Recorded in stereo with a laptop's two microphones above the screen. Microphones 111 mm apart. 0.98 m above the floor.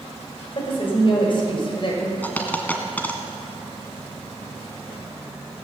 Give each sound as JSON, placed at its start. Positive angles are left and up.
{"t": 0.6, "sound": "a woman speaking", "side_deg": 45, "distance_m": 4.0}
{"t": 2.2, "sound": "a dropped coin", "side_deg": 15, "distance_m": 1.5}